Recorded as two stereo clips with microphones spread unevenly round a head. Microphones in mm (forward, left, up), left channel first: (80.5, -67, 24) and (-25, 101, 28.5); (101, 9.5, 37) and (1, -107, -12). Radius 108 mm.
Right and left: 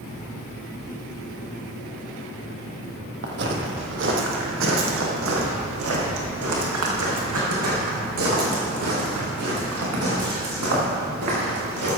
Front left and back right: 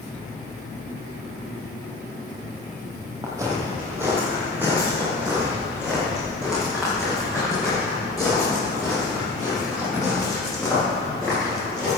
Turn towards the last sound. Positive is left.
turn(degrees=130)